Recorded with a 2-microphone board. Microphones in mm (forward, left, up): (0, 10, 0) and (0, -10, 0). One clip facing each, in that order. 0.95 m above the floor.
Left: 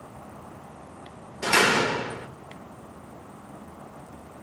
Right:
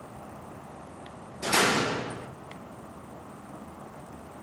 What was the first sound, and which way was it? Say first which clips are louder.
A door slam: left 4 dB; 75° left (ahead or behind).